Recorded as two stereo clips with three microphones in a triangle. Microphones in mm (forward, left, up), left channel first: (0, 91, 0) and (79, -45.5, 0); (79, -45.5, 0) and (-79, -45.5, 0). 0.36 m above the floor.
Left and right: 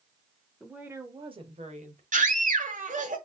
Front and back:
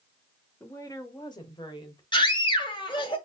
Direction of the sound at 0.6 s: 30° left.